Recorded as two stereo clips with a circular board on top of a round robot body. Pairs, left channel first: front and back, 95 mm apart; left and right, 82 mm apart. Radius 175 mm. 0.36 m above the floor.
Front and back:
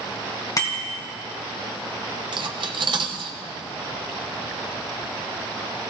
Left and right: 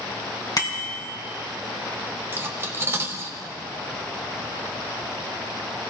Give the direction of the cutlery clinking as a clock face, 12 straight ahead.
5 o'clock.